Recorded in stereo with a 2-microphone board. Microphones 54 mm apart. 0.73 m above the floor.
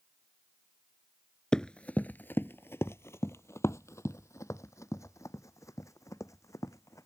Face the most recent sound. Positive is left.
turn(degrees=70)  # may be behind; listen again after turning